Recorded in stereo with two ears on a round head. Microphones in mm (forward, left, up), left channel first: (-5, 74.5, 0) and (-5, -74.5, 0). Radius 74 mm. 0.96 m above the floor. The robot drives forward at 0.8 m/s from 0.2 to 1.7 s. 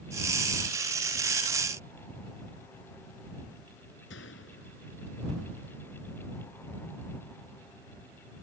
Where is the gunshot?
85° left.